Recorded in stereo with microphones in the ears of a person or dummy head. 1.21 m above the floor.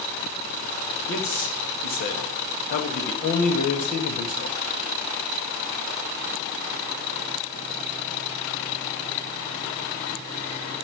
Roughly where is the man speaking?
Left.